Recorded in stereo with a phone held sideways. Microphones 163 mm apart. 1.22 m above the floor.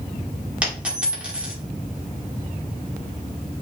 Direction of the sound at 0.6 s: 10° right (ahead or behind).